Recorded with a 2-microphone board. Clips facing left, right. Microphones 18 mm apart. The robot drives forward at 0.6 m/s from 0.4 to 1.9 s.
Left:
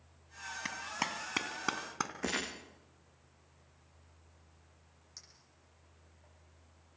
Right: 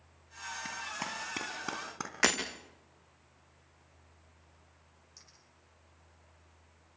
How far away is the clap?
About 2.5 m.